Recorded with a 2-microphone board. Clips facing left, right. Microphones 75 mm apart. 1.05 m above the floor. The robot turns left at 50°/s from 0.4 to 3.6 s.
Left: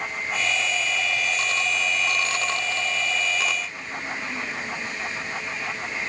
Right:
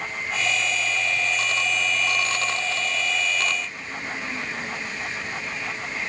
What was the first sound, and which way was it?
Only background noise.